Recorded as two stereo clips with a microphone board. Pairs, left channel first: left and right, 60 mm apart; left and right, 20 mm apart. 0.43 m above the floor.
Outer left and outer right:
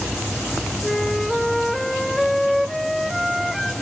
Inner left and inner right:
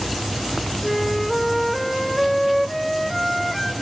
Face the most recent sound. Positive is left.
turn(degrees=0)  # may be behind; listen again after turning